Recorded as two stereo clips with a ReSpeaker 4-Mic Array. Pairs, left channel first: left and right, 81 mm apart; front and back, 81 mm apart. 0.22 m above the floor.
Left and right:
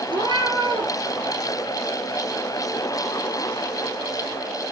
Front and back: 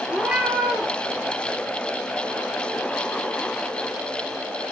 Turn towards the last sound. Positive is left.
turn(degrees=-100)